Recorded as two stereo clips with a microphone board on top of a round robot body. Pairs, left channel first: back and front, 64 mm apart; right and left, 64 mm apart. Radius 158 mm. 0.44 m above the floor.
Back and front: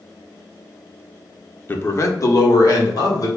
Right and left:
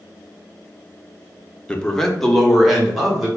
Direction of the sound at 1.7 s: 155° right.